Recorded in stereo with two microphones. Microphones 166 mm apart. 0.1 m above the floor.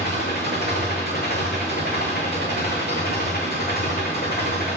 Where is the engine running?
65° left (ahead or behind), 3.5 m.